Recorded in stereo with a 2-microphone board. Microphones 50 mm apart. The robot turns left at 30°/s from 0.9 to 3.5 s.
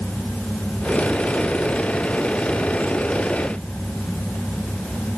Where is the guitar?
I don't hear a guitar.